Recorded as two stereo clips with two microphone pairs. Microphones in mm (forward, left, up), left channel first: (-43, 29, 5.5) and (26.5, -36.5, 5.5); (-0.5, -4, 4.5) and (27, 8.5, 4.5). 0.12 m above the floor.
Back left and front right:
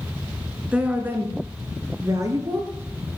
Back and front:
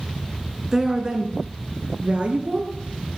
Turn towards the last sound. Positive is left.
turn(degrees=-5)